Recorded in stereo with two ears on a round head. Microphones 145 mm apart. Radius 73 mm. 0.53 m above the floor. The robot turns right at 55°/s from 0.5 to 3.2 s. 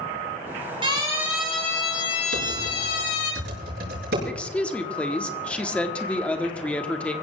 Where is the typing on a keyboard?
65° right (ahead or behind), 6 m.